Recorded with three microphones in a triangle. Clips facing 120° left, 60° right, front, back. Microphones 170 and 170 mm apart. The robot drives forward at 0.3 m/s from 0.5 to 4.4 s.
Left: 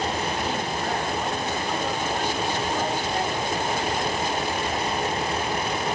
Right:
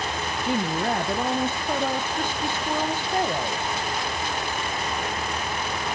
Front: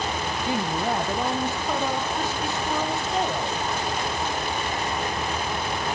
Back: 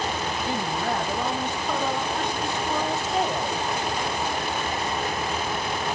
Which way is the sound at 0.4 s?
70° right.